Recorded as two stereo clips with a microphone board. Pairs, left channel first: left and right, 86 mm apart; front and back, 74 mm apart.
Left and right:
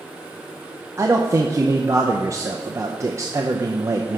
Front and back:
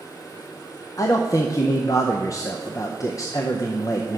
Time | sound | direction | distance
1.0 | a man speaking | 40° right | 0.6 m